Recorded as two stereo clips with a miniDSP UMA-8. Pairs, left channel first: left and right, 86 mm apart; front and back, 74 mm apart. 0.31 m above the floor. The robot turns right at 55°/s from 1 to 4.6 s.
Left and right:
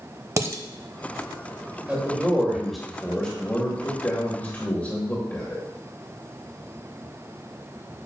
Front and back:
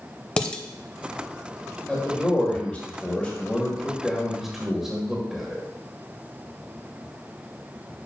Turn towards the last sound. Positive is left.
turn(degrees=105)